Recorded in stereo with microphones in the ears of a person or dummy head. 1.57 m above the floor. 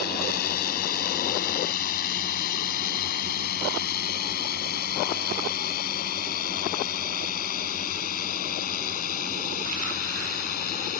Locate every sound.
0.0 s a drone: 55° left (ahead or behind); by 11.0 s 50° left (ahead or behind)